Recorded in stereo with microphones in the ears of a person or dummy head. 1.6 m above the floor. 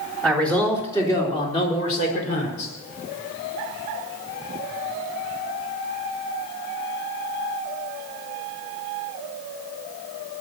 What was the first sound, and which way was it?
A man speaking, centre (ahead or behind).